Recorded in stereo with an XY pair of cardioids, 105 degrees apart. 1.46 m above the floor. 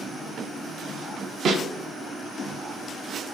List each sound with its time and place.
1.4 s a snare drum: 55° right, 0.6 m